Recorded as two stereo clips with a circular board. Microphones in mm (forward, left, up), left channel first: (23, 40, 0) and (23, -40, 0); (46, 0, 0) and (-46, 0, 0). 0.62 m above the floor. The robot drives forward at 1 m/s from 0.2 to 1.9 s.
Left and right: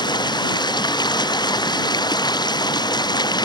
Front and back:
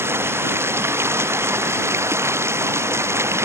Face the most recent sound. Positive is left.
turn(degrees=120)